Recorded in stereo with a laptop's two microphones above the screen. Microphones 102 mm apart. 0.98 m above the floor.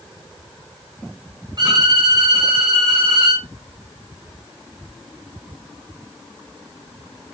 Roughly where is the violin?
Right.